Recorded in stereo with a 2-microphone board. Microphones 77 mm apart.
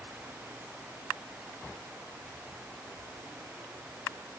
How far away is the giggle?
No giggle in this recording.